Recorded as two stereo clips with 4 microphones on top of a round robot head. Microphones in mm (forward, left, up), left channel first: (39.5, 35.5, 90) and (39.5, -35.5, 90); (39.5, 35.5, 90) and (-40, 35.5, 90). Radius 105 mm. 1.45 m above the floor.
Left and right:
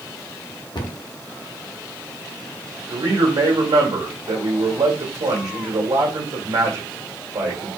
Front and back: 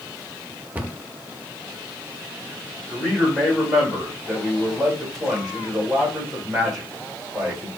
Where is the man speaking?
90° right, 1.5 m.